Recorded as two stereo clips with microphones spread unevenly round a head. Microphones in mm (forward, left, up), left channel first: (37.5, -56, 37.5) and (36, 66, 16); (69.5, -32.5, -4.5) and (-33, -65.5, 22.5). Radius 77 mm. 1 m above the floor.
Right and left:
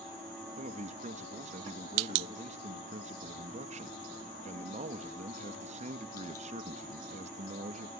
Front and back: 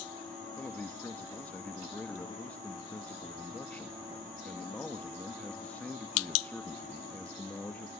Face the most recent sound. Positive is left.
turn(degrees=95)